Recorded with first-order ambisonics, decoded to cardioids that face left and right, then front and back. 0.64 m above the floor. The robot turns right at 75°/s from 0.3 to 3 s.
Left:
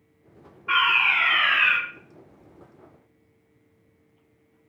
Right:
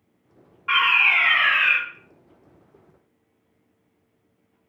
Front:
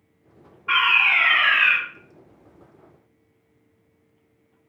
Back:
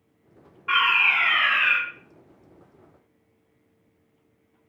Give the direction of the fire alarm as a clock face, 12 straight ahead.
4 o'clock.